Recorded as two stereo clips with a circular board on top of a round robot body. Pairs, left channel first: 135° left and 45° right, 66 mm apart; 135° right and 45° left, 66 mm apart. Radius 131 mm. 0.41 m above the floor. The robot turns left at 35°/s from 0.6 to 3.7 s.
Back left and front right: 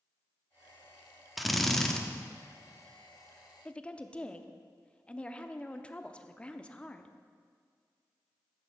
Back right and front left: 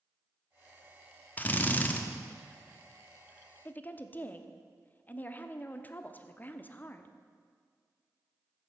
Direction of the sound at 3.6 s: 165° right.